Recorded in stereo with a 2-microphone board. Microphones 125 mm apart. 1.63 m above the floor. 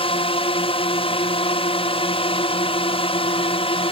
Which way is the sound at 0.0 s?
45° left (ahead or behind).